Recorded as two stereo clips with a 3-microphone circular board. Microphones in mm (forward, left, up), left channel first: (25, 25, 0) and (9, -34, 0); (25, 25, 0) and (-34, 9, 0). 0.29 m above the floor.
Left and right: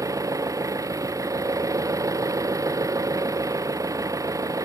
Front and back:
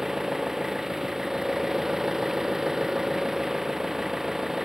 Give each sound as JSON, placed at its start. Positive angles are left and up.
{"t": 0.0, "sound": "an engine running", "azimuth_deg": -80}